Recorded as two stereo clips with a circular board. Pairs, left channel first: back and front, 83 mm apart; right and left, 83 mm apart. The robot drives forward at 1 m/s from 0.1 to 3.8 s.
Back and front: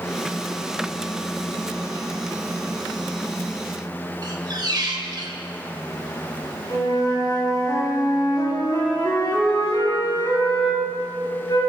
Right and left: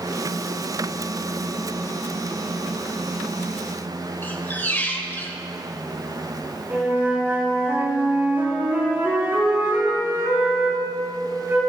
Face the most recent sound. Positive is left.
turn(degrees=150)